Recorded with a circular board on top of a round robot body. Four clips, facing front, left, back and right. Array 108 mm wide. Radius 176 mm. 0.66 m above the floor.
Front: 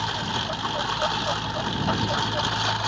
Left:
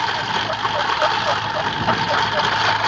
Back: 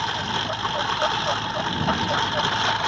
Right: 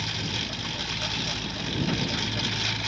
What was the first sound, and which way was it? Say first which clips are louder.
A lawn mower: left 13 dB, back 2 dB; 95° left.